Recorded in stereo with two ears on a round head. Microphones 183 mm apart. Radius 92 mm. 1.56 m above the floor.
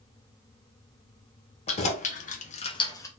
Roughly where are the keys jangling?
Left.